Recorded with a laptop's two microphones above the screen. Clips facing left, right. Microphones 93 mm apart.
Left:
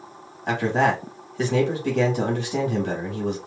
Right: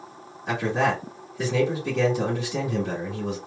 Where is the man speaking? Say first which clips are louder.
Left 3 dB; 60° left (ahead or behind), 1.9 m.